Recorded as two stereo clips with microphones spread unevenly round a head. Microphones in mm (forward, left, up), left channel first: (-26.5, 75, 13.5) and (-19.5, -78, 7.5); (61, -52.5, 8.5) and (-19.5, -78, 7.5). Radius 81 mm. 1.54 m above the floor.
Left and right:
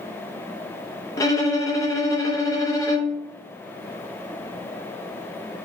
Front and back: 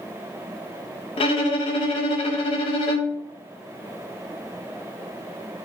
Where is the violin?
25° left, 0.5 m.